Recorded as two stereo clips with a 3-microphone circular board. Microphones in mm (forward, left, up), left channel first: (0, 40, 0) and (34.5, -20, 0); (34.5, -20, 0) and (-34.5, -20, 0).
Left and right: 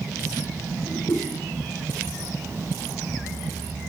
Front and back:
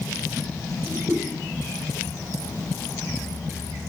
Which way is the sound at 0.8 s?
145° left.